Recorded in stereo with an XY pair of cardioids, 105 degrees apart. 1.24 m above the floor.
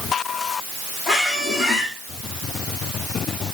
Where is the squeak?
30° left, 7 m.